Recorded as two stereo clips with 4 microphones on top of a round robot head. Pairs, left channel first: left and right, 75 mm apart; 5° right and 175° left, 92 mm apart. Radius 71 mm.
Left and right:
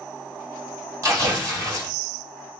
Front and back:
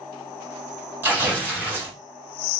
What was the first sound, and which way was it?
Tearing paper, 120° right.